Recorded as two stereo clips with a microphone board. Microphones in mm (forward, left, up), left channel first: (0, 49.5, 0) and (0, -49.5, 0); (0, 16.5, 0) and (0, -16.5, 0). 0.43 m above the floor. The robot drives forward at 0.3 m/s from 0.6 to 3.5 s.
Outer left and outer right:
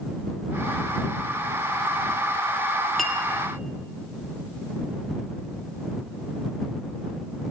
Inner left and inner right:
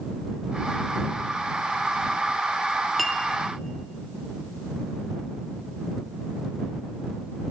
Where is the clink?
5° left (ahead or behind), 0.6 m.